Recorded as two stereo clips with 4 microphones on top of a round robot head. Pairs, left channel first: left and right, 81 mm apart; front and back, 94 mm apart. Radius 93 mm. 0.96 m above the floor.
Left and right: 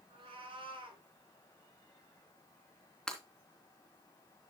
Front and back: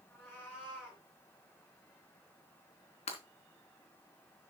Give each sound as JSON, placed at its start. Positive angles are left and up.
{"t": 0.1, "sound": "a cat meowing", "azimuth_deg": -75, "distance_m": 4.5}
{"t": 3.1, "sound": "breaking glass", "azimuth_deg": 5, "distance_m": 3.0}